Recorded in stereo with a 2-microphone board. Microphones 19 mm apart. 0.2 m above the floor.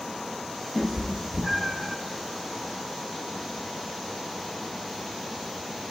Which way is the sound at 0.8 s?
5° right (ahead or behind).